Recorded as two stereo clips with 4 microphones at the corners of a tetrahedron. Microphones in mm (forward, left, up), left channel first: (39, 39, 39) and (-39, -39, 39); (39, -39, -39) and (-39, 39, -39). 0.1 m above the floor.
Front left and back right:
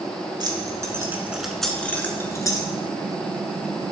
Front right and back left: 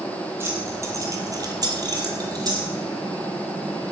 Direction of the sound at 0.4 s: 165° right.